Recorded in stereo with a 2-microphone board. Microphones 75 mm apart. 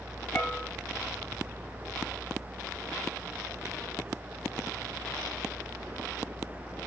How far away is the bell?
About 1.1 m.